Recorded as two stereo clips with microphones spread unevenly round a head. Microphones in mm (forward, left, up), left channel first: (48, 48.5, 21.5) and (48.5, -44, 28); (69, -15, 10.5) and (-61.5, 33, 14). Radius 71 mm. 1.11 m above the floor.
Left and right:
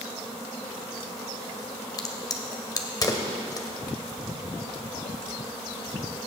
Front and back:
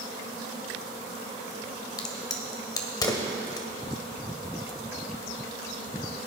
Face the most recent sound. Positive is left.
turn(degrees=45)